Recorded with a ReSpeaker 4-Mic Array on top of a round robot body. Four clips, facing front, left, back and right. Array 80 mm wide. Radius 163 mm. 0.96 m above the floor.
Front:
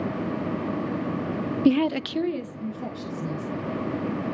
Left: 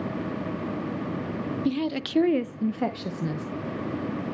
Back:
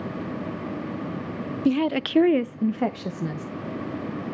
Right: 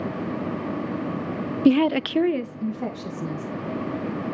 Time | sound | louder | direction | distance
1.6 | a woman speaking | right 11 dB, front 1 dB | 70° right | 0.6 m